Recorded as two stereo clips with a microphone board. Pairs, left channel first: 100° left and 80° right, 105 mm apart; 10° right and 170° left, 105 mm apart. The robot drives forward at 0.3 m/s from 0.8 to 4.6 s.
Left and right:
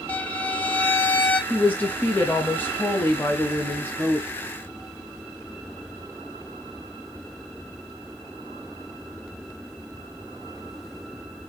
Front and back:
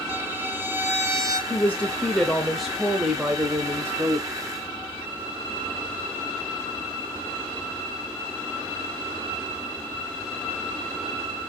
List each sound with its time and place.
0.1 s a violin: 145° left, 0.7 m; by 1.4 s 160° left, 0.8 m
1.5 s a woman speaking: 40° left, 1.1 m; by 4.3 s 140° left, 1.1 m